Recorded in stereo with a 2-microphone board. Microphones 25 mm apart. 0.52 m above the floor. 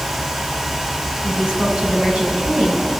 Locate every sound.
1.2 s a woman speaking: 40° right (ahead or behind), 3 m; by 3.0 s 45° right (ahead or behind), 4 m